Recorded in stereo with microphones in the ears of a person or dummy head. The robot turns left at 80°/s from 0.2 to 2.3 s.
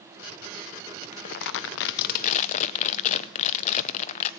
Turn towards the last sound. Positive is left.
turn(degrees=45)